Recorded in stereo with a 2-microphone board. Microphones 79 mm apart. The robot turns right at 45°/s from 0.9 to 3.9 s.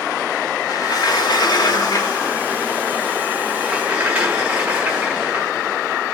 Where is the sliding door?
65° left, 2 m; by 5.5 s 160° right, 2 m.